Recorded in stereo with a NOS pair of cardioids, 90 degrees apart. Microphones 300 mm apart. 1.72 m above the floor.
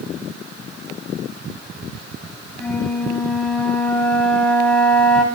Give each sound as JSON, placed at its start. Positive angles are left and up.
{"t": 2.6, "sound": "a flute", "azimuth_deg": 5, "distance_m": 9.0}